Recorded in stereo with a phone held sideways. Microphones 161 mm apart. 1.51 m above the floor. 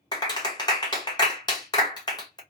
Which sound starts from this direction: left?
A clap, at 0.1 s.